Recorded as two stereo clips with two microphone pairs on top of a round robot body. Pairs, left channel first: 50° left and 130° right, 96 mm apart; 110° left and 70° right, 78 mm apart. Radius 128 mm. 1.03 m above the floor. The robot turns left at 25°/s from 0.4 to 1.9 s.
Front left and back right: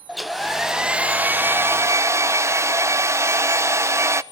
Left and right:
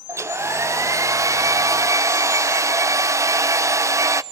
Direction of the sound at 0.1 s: 40° right.